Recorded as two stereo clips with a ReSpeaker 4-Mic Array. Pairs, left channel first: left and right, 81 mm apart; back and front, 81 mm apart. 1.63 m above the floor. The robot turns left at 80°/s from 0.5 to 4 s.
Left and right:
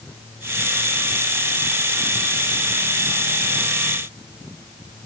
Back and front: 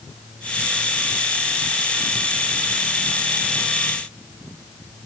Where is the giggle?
I don't hear a giggle.